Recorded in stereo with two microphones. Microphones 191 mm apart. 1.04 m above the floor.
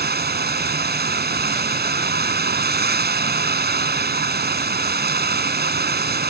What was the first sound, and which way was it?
Running water, 50° right (ahead or behind).